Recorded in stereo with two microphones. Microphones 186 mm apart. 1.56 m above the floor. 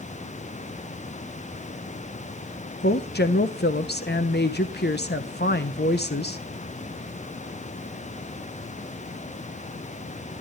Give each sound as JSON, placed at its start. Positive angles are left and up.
{"t": 2.8, "sound": "a woman speaking", "side_deg": 60, "distance_m": 0.9}